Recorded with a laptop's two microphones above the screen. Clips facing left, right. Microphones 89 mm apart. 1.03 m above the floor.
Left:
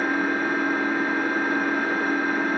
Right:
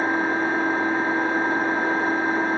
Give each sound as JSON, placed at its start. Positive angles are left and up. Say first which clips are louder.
{"t": 0.0, "sound": "an engine running", "louder": "right 1 dB", "side_deg": -30, "distance_m": 1.9}